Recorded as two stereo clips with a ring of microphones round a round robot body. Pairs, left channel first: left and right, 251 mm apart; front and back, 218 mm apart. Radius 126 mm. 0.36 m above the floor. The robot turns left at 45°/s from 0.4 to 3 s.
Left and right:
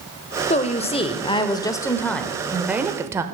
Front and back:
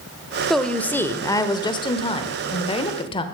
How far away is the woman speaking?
About 0.9 m.